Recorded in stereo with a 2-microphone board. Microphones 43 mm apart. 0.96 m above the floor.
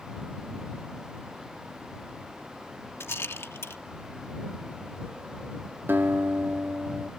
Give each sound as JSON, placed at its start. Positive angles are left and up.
{"t": 3.0, "sound": "a rattle", "side_deg": 75}
{"t": 5.9, "sound": "a guitar", "side_deg": -55}